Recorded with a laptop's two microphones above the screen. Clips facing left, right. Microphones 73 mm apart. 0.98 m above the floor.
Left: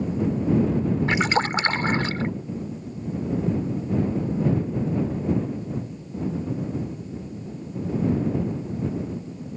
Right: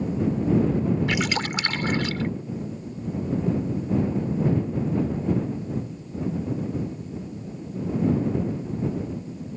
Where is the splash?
35° left (ahead or behind).